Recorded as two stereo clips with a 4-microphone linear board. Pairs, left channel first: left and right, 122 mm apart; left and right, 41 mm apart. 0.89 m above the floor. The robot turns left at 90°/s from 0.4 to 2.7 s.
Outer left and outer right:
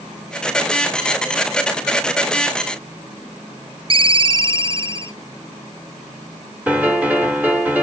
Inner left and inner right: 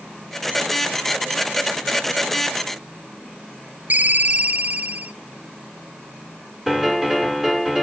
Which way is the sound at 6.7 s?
10° right (ahead or behind).